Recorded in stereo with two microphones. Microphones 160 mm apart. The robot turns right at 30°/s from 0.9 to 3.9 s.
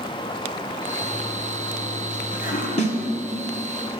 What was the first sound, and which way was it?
A toilet flushing, 10° left.